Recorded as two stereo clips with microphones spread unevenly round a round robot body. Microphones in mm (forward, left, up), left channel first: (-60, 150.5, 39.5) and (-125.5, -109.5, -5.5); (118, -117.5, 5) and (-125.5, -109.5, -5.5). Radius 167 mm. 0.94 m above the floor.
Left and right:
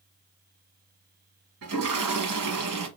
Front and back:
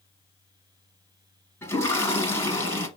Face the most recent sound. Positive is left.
turn(degrees=-80)